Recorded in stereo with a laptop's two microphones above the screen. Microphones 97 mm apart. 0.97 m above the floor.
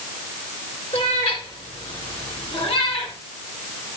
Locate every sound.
0.9 s a cat meowing: 80° left, 4.5 m